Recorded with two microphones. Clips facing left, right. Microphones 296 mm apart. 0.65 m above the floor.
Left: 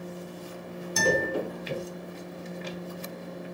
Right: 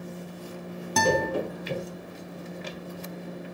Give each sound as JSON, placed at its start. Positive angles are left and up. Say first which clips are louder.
{"t": 1.0, "sound": "a guitar", "louder": "right 2 dB", "side_deg": -85, "distance_m": 2.5}